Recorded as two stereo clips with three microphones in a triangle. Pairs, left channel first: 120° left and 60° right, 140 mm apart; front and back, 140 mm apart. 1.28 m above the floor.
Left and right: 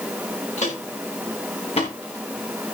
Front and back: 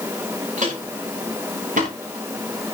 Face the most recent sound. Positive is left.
turn(degrees=165)